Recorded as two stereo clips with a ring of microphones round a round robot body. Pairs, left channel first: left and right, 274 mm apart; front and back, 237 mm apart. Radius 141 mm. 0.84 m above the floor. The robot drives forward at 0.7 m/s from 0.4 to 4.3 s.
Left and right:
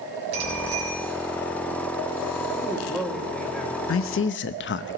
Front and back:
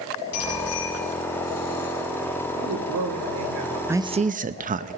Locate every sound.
0.3 s a bicycle bell: 35° right, 5 m; by 0.9 s 40° right, 5 m
2.5 s a man speaking: straight behind, 2.5 m
3.9 s a man speaking: 100° left, 0.6 m; by 5.0 s 130° left, 0.7 m